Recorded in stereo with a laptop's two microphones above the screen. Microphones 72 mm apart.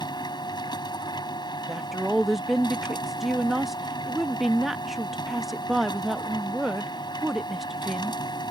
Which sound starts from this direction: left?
A machine running, at 0.0 s.